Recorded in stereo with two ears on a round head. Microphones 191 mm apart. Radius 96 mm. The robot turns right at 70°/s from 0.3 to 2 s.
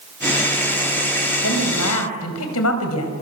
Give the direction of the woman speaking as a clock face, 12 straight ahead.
10 o'clock.